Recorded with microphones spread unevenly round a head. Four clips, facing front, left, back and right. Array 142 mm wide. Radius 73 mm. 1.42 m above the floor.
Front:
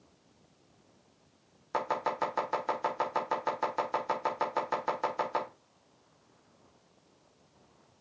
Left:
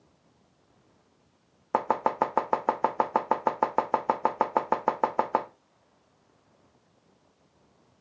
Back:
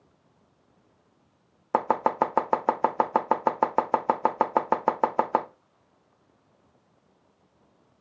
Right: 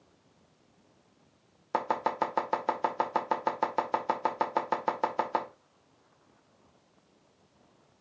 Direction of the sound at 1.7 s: 165° left.